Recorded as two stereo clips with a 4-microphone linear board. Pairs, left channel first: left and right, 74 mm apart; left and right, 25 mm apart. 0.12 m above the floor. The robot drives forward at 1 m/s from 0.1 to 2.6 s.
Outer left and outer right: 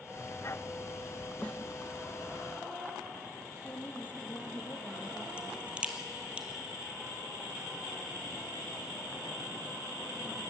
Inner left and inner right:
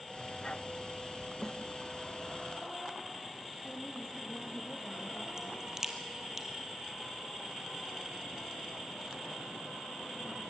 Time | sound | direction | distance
1.4 | a snare drum | 15° left (ahead or behind) | 1.7 m
3.6 | a woman speaking | 25° left (ahead or behind) | 3 m
5.4 | a crack | 15° right (ahead or behind) | 1.9 m